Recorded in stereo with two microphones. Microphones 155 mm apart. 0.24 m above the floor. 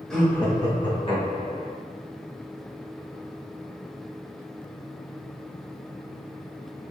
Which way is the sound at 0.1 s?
5° left (ahead or behind).